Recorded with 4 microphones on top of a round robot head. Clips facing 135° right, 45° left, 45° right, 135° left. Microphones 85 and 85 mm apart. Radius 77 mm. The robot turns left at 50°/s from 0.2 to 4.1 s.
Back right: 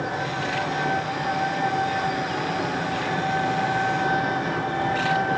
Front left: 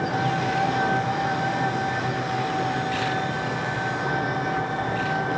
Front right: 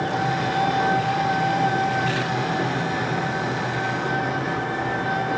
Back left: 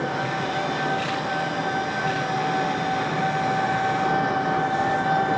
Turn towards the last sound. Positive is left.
turn(degrees=-165)